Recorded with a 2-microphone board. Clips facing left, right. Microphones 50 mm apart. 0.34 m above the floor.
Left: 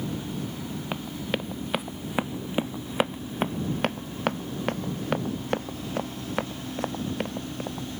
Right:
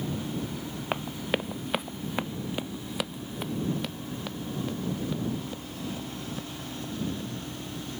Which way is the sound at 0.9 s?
20° right (ahead or behind).